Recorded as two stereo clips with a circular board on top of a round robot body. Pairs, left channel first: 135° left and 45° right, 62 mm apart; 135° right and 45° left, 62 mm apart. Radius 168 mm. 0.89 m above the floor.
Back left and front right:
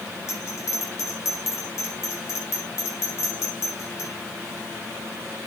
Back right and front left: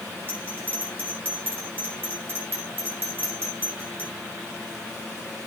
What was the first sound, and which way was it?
A bell, 100° left.